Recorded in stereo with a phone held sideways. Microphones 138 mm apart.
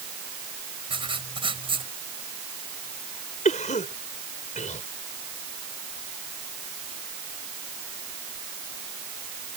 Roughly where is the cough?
Left.